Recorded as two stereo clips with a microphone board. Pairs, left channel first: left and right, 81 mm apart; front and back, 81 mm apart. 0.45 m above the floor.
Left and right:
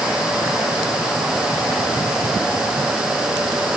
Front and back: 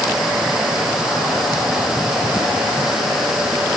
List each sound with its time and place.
Only background noise.